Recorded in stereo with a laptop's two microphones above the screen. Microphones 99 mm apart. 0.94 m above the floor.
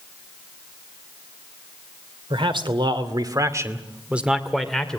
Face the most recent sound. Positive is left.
turn(degrees=10)  # may be behind; listen again after turning